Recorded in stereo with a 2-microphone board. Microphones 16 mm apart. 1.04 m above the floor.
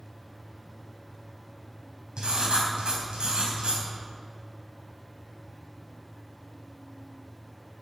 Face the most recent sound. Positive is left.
turn(degrees=-85)